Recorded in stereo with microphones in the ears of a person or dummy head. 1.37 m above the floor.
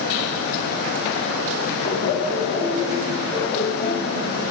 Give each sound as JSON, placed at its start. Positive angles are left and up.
{"t": 1.8, "sound": "laughter", "side_deg": 50, "distance_m": 5.0}